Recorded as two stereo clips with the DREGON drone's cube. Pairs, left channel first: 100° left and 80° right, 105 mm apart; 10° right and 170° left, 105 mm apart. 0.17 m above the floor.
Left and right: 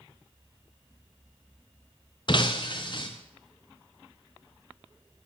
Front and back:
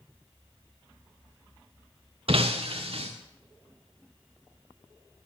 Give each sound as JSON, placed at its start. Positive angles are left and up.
{"t": 2.3, "sound": "breaking glass", "azimuth_deg": 140, "distance_m": 1.9}